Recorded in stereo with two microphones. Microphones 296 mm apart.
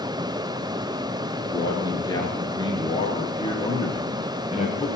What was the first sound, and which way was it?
A man speaking, 10° left (ahead or behind).